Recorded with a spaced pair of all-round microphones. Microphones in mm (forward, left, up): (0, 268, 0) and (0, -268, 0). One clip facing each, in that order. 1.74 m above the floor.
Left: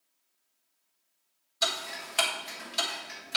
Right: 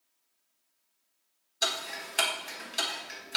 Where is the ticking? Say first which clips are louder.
Left 1 dB; 25° left (ahead or behind), 1.3 m.